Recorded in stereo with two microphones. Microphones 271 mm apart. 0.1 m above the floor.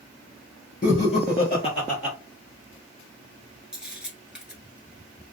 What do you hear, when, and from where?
0.8 s laughter: 35° left (ahead or behind), 1.6 m
3.7 s a camera shutter: 5° right (ahead or behind), 0.9 m